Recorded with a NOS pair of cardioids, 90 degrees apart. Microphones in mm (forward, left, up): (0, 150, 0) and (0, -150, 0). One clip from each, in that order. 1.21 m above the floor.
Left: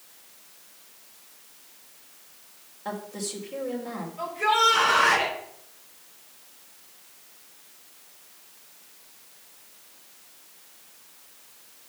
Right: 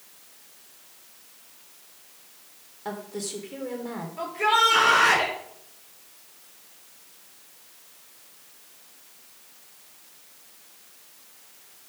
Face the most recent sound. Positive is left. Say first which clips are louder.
# right 1 dB
turn(degrees=-65)